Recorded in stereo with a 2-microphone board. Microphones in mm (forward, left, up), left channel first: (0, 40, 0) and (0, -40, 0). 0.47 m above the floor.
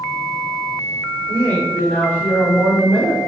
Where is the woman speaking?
25° left (ahead or behind), 1.6 m; by 3.2 s centre (ahead or behind), 1.1 m.